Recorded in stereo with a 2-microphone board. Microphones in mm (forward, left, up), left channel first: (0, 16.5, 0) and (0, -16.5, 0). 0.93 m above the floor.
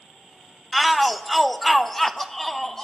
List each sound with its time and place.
0.7 s a shout: centre (ahead or behind), 1.0 m; by 2.9 s 10° left (ahead or behind), 1.0 m